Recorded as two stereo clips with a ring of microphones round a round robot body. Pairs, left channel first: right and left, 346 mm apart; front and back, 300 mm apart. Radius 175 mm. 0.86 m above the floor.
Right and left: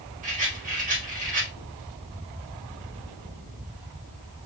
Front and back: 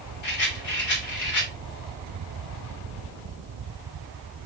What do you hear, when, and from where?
0.2 s a rattle: 20° left, 3.5 m